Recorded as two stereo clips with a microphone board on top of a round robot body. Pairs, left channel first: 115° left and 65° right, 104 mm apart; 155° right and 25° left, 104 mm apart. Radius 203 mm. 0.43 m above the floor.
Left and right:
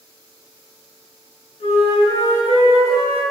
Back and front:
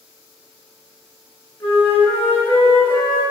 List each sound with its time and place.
1.6 s a flute: 130° left, 5 m